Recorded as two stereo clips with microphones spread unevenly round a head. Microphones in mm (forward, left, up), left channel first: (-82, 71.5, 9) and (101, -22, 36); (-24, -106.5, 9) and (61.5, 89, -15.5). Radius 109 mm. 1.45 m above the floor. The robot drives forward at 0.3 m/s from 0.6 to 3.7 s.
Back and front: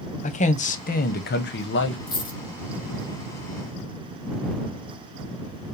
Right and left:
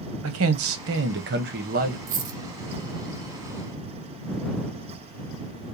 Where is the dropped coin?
85° left, 0.9 m; by 2.4 s 95° left, 0.9 m.